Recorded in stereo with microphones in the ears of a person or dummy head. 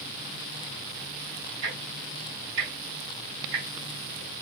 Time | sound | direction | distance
1.6 | ticking | 60° right (ahead or behind) | 4.5 m